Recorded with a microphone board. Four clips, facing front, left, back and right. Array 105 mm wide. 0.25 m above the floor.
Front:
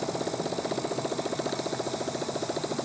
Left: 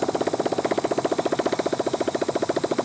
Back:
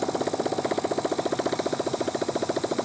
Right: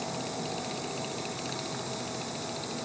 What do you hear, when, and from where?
0.0 s a motorcycle: 105° left